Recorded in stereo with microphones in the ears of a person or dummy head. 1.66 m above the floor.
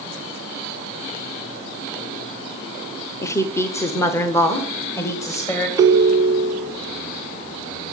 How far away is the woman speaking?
About 0.8 m.